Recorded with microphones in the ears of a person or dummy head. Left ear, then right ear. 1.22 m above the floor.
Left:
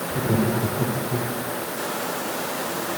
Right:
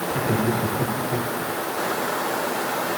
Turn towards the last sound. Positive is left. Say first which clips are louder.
# even
turn(degrees=-80)